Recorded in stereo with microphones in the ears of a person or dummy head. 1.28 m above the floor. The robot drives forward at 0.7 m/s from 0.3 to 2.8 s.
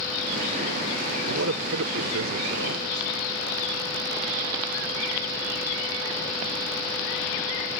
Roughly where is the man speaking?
Right.